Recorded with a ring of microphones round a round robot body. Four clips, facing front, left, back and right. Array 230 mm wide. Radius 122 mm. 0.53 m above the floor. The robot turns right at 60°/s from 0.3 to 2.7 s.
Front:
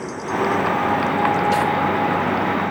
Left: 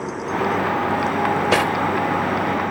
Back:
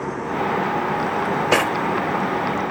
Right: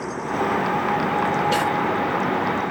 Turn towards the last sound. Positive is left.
turn(degrees=-150)